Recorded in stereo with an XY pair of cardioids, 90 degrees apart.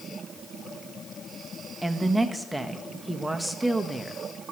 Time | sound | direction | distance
1.8 | a woman speaking | 10° right | 1.3 m